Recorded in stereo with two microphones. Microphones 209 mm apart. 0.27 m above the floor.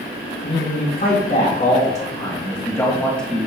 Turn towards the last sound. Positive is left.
turn(degrees=-5)  # may be behind; listen again after turning